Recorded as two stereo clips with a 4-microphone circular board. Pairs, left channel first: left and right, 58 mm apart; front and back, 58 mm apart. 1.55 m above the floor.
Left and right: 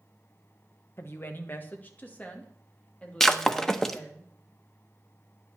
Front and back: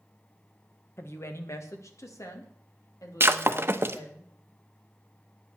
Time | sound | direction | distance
1.0 | a woman speaking | 45° left | 1.5 m
3.2 | breaking glass | 165° left | 0.9 m